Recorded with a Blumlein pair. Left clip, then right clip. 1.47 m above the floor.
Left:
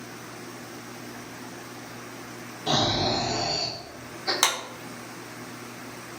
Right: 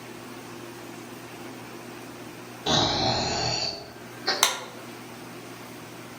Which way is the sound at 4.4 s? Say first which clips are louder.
Even; 5° right.